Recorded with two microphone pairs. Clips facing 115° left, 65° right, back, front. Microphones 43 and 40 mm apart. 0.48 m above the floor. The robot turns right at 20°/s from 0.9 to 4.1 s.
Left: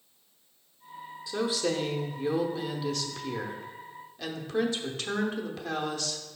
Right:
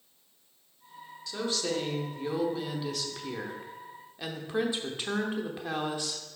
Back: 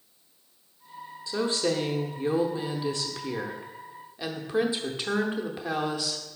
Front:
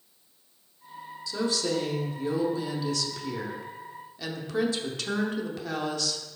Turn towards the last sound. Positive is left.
turn(degrees=-125)